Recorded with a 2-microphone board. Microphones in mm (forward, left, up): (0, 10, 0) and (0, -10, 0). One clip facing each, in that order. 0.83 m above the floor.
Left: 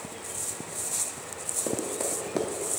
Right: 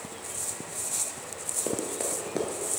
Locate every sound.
1.7 s running footsteps: 10° right (ahead or behind), 1.0 m; by 2.7 s 10° left (ahead or behind), 0.8 m